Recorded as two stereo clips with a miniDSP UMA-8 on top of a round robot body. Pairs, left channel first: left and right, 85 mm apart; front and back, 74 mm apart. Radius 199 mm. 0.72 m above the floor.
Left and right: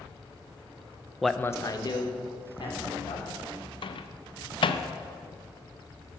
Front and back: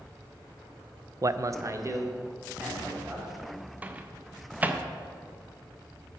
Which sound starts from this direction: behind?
A man speaking, at 1.2 s.